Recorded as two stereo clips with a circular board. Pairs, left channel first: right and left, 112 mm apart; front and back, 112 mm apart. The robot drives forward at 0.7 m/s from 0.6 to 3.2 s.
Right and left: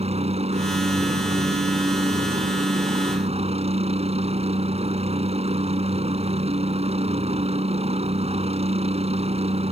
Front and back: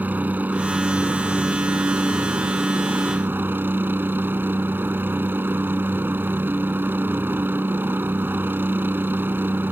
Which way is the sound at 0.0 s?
105° left.